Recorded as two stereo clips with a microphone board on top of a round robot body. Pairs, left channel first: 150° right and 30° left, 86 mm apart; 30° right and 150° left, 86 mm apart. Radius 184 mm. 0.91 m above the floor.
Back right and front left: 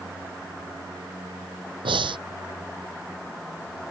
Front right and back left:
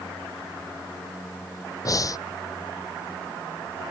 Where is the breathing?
15° left.